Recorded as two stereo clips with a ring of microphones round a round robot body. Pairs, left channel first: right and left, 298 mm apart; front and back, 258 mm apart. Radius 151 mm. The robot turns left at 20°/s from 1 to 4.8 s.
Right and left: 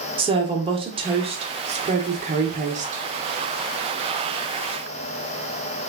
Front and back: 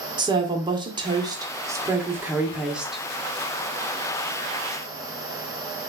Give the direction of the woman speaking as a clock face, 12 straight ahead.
8 o'clock.